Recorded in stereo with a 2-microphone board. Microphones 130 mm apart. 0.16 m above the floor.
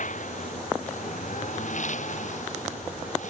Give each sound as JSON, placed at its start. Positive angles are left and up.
{"t": 0.0, "sound": "a lawn mower", "side_deg": 75}